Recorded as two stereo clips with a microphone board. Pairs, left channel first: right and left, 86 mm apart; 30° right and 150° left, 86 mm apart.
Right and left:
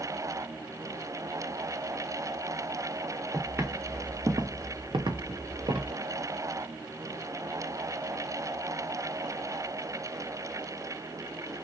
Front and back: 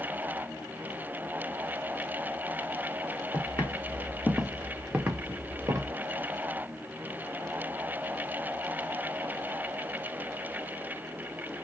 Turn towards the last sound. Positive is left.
turn(degrees=110)